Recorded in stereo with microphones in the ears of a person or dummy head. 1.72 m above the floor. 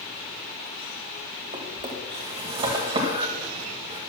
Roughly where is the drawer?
Right.